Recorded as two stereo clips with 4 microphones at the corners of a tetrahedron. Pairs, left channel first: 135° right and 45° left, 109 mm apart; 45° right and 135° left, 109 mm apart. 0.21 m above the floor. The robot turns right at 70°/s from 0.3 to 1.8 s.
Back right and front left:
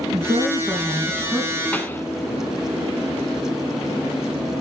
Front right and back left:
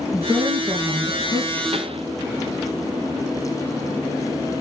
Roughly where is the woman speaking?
Ahead left.